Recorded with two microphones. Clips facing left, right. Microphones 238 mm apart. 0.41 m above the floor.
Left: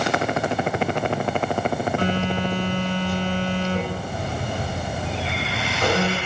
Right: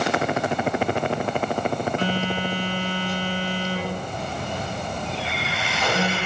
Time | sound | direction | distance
2.0 | a phone buzzing | 55° left (ahead or behind) | 4 m